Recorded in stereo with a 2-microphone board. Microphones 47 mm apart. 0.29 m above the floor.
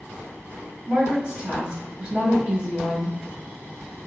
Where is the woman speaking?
20° right (ahead or behind), 1.7 m.